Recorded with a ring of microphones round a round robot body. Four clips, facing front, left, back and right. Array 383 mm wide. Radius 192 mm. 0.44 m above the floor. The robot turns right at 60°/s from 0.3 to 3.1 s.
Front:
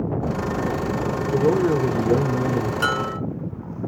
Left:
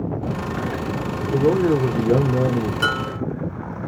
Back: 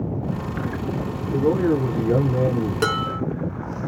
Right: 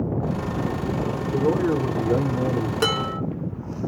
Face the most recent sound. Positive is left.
turn(degrees=-120)